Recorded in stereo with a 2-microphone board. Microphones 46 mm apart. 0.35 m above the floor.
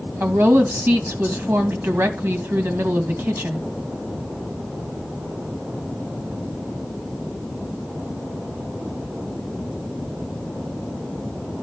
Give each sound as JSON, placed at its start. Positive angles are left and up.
{"t": 0.2, "sound": "a woman speaking", "side_deg": -60, "distance_m": 2.5}